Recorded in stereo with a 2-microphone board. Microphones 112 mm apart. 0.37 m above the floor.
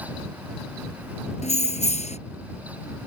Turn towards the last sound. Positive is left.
turn(degrees=85)